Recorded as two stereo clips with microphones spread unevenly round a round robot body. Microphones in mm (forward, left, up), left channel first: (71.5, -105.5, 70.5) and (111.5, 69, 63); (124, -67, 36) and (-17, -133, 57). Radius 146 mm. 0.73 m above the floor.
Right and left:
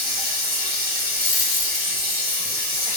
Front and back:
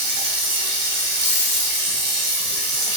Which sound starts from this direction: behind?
Running water, at 0.0 s.